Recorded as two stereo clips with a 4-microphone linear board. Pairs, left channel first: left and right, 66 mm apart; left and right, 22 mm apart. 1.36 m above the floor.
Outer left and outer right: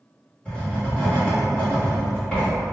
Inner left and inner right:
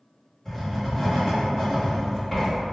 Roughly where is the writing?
Centre.